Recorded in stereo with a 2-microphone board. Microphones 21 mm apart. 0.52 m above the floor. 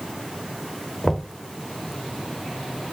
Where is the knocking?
15° left (ahead or behind), 1.2 m.